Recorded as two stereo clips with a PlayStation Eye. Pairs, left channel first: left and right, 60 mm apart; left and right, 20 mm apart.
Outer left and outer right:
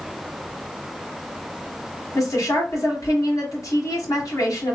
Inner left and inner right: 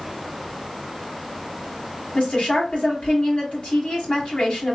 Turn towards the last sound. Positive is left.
turn(degrees=75)  # may be behind; listen again after turning